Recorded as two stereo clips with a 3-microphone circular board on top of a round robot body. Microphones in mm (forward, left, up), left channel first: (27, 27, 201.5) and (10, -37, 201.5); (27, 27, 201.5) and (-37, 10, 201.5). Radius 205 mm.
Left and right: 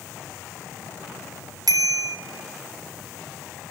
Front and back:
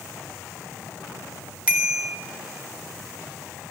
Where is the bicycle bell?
90° right, 3 m.